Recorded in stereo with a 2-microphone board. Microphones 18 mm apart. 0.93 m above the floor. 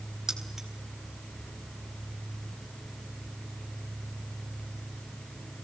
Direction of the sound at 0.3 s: 30° right (ahead or behind).